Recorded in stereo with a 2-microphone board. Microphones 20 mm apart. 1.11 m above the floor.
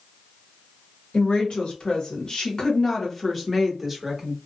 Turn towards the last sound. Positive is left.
turn(degrees=-10)  # may be behind; listen again after turning